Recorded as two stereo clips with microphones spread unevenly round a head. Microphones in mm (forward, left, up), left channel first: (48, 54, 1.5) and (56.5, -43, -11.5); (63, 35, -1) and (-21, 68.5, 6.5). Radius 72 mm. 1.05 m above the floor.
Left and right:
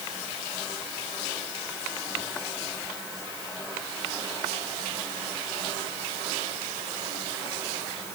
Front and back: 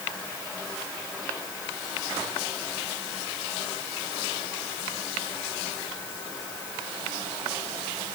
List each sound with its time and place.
Only background noise.